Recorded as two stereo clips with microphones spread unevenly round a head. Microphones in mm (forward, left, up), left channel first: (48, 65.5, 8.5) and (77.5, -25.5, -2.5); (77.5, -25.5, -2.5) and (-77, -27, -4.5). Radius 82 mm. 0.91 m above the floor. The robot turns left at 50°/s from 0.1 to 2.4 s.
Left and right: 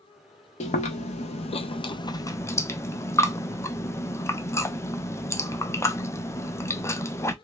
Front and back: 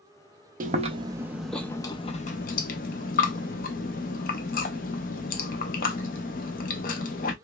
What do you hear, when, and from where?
0.6 s chewing: 135° left, 0.6 m; by 7.3 s 45° left, 0.6 m